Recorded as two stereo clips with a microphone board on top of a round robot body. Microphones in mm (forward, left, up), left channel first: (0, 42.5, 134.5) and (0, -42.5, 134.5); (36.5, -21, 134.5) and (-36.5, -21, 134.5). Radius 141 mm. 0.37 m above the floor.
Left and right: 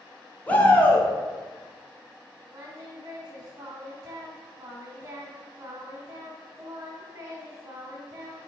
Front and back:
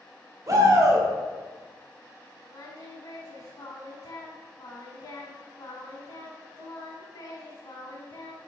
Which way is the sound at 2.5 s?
40° right.